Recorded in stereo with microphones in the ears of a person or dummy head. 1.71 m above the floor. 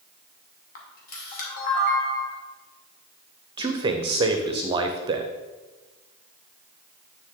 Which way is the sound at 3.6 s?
30° right (ahead or behind).